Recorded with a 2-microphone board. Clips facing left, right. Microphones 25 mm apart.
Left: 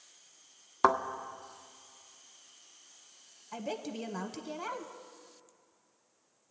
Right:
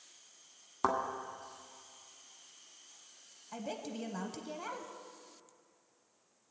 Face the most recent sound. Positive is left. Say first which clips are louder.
# left 3 dB
turn(degrees=15)  # may be behind; listen again after turning